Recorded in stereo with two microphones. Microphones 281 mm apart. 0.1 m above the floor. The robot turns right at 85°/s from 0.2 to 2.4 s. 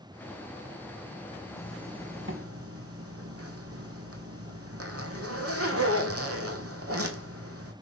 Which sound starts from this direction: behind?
A zipper, at 1.6 s.